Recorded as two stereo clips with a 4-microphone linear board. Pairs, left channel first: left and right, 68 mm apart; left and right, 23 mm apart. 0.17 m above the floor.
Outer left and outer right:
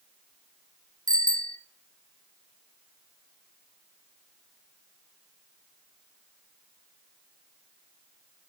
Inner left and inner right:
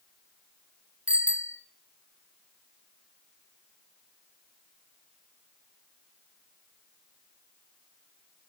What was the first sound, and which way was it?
A bicycle bell, 70° right (ahead or behind).